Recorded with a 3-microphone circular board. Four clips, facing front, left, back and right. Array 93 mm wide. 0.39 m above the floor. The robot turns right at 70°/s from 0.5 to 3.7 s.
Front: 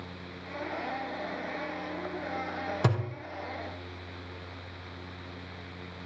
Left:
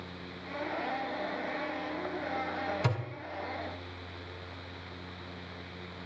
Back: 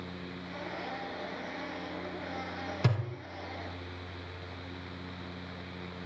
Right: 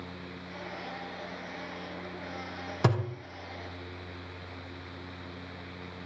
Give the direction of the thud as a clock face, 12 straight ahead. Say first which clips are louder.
Right 5 dB, front 3 dB; 2 o'clock.